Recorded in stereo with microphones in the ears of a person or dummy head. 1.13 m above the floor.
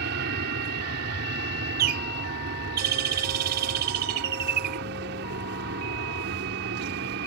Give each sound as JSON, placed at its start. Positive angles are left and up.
{"t": 0.0, "sound": "an aircraft", "side_deg": -60}
{"t": 1.8, "sound": "a bird", "side_deg": -55}